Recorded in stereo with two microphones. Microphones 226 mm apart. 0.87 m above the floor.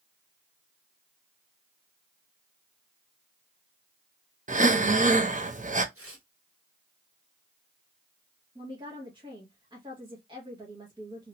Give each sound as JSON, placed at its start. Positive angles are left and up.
{"t": 4.5, "sound": "breathing", "side_deg": -35, "distance_m": 0.6}
{"t": 6.0, "sound": "tearing paper", "side_deg": -75, "distance_m": 1.5}
{"t": 8.6, "sound": "a woman speaking", "side_deg": -20, "distance_m": 1.1}